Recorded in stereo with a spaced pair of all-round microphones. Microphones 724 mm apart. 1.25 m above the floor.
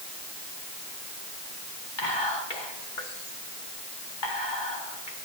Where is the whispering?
75° left (ahead or behind), 2.5 m.